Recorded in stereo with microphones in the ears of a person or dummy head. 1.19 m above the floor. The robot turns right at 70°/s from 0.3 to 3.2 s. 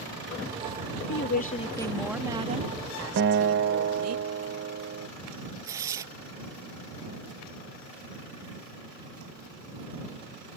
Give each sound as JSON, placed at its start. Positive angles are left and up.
{"t": 1.1, "sound": "a woman speaking", "azimuth_deg": 115}
{"t": 3.2, "sound": "a guitar", "side_deg": -60}
{"t": 5.6, "sound": "tearing paper", "side_deg": -20}